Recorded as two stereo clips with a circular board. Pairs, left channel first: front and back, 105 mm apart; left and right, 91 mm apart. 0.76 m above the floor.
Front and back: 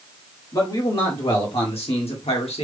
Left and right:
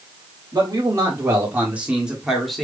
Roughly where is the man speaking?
Ahead right.